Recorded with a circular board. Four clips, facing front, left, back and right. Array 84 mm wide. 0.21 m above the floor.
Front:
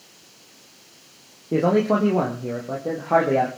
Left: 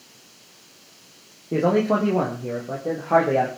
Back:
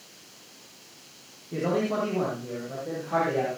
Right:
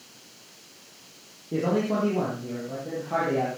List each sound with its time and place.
1.5 s a man speaking: 30° left, 5.5 m; by 3.5 s 40° left, 6 m